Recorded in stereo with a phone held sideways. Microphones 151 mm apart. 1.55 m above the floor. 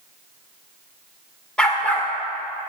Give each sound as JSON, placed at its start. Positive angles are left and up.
{"t": 1.6, "sound": "a dog barking", "side_deg": 5, "distance_m": 2.0}